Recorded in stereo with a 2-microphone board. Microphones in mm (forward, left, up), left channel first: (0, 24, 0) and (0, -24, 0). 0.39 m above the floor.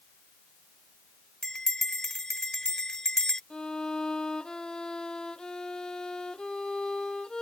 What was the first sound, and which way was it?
A bell, 10° left (ahead or behind).